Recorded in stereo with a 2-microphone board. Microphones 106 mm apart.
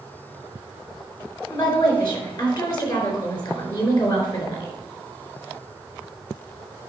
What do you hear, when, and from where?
1.5 s a woman speaking: 45° left (ahead or behind), 4 m